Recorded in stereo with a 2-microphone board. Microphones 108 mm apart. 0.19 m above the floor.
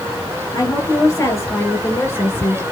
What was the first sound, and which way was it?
A woman speaking, 30° left (ahead or behind).